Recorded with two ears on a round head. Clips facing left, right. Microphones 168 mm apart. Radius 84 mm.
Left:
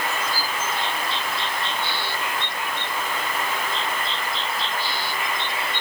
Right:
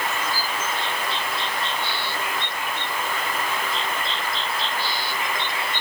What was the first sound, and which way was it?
Only background noise.